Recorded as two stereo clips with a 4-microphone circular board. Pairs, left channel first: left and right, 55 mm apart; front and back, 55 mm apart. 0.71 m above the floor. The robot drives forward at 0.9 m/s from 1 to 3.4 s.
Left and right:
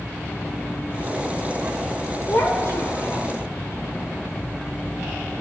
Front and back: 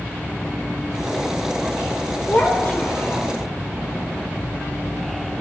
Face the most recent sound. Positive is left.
turn(degrees=75)